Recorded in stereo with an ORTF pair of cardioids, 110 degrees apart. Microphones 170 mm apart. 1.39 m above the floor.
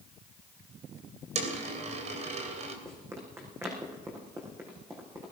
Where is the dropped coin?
45° right, 3 m.